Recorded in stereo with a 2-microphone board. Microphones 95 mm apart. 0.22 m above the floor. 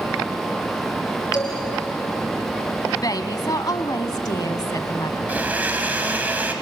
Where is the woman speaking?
40° left (ahead or behind), 1.4 m.